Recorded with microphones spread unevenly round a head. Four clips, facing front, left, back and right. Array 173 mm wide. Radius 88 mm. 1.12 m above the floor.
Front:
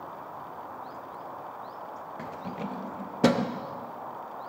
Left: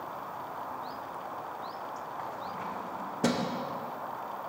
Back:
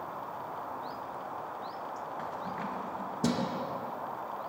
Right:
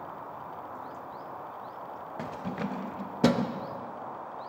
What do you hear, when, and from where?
2.2 s keys jangling: 80° right, 0.6 m; by 3.6 s straight ahead, 0.9 m